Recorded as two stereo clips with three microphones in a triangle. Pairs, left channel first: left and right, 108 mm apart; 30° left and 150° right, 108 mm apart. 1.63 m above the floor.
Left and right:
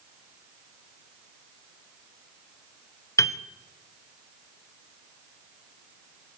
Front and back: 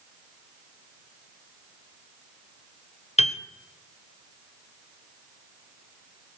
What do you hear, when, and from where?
3.2 s a piano: 30° left, 1.0 m